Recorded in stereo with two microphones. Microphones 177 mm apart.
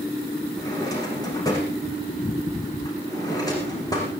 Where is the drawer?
20° left (ahead or behind), 6 m.